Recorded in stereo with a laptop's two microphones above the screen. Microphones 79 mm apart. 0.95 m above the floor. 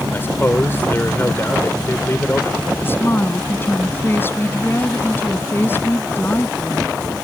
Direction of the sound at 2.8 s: 25° left (ahead or behind).